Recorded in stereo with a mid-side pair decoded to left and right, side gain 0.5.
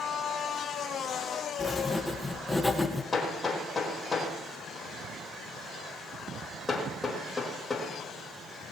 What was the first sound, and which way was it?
Writing, 10° left.